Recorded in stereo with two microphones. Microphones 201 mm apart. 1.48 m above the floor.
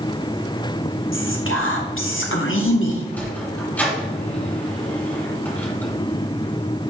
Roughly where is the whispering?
Left.